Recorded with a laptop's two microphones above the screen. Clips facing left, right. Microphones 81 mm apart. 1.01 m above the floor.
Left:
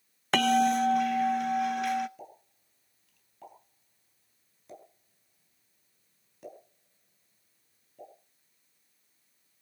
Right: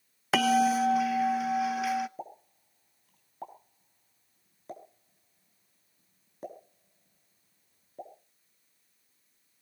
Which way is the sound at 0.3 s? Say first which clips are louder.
Even; 5° right (ahead or behind).